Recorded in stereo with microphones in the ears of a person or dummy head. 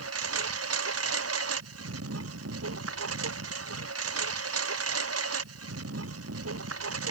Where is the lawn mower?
90° right; by 7.1 s 85° right.